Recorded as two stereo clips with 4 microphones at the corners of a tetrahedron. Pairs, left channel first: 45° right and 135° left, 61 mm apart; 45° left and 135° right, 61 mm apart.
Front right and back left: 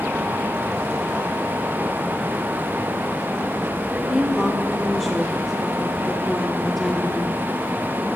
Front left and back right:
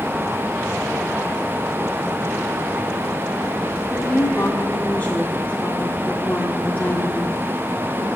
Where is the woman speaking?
35° left, 1.4 m.